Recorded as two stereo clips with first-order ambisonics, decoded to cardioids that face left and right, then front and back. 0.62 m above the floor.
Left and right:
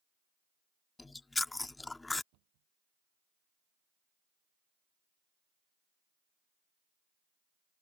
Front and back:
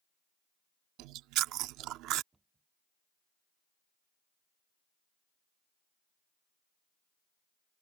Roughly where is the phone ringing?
I don't hear a phone ringing.